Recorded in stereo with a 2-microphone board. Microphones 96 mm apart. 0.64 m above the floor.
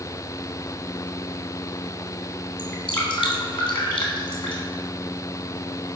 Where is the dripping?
65° left (ahead or behind), 2.5 m.